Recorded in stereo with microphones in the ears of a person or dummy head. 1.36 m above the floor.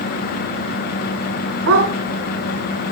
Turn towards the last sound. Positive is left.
turn(degrees=-75)  # may be behind; listen again after turning